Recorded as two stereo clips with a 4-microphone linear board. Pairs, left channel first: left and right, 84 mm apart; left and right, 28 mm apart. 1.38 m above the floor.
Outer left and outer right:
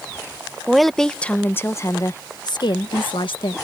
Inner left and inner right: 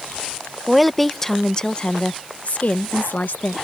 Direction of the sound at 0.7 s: 5° right (ahead or behind).